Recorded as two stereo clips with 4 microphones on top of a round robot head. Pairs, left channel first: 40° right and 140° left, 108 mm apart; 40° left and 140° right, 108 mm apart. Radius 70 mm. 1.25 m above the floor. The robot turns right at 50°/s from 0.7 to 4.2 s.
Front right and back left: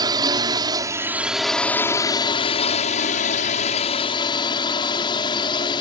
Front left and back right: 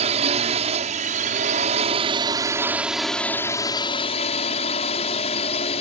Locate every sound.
0.0 s a drone: 165° right; by 5.8 s 10° left